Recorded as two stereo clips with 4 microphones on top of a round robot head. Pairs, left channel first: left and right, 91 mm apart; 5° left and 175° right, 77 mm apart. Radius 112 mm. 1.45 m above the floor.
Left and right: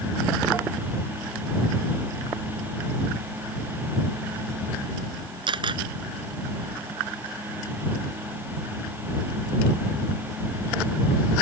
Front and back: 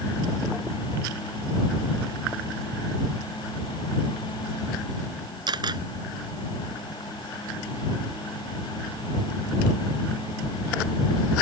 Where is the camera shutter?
135° right.